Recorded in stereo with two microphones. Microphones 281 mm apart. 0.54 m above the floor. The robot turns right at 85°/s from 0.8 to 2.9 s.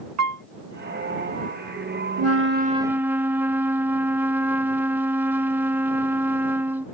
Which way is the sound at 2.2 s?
70° right.